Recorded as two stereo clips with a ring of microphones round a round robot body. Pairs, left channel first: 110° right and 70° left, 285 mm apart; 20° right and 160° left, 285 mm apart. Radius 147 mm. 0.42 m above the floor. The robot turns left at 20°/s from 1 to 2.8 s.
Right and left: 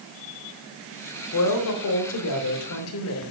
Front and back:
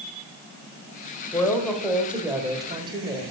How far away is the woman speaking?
About 1.4 m.